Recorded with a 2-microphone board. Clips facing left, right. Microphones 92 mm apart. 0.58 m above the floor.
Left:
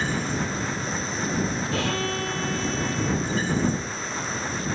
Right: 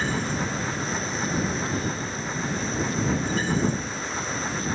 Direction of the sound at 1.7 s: 80° left.